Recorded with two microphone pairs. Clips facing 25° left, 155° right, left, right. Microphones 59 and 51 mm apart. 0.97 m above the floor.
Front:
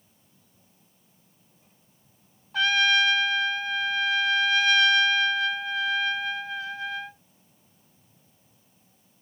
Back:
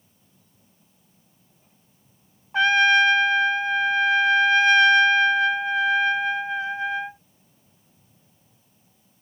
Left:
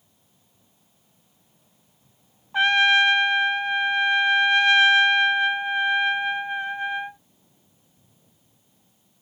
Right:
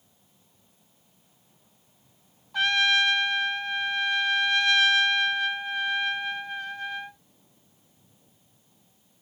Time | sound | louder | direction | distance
2.5 | a trumpet | back 5 dB, left 5 dB | 150° left | ?